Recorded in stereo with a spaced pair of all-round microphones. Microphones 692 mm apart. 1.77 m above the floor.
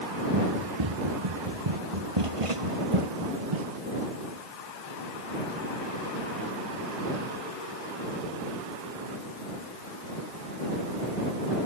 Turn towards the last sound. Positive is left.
turn(degrees=-40)  # may be behind; listen again after turning